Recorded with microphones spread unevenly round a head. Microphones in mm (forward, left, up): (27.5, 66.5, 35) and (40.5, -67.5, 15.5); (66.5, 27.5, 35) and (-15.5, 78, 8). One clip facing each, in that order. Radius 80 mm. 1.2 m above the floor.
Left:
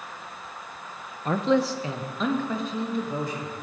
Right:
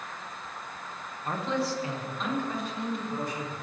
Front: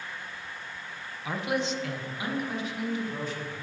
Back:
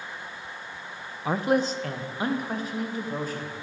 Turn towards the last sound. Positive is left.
turn(degrees=105)